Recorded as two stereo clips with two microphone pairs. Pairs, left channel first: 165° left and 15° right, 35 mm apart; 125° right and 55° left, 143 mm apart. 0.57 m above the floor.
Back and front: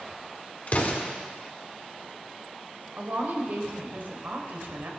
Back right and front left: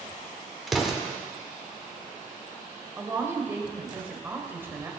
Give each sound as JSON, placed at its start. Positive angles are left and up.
{"t": 0.7, "sound": "an explosion", "azimuth_deg": 140, "distance_m": 1.8}
{"t": 3.0, "sound": "a woman speaking", "azimuth_deg": -20, "distance_m": 2.5}